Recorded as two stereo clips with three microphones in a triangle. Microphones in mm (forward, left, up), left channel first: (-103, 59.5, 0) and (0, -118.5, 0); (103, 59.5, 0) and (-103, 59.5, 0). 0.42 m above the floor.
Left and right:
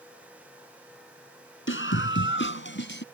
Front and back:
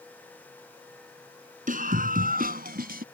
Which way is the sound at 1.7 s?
130° left.